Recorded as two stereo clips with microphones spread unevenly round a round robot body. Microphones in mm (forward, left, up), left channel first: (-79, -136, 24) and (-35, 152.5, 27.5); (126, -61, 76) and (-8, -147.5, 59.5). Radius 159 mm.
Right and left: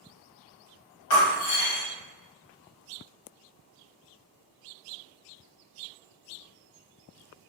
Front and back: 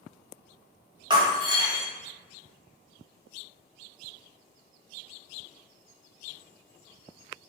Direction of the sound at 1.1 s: 90° right.